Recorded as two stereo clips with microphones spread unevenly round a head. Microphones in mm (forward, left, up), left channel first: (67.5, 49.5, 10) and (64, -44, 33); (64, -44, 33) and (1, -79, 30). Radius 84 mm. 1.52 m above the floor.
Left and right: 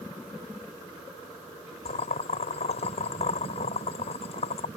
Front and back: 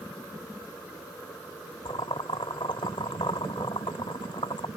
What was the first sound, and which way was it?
Boiling, 80° left.